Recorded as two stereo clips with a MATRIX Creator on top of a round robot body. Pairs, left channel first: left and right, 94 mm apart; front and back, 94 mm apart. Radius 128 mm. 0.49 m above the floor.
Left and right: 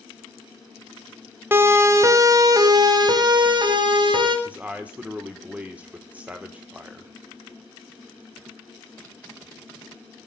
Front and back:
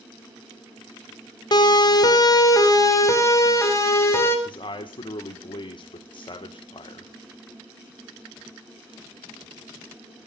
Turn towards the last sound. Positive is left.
turn(degrees=-15)